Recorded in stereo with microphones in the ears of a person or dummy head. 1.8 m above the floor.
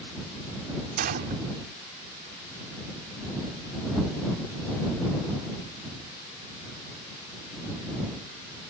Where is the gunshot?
50° right (ahead or behind).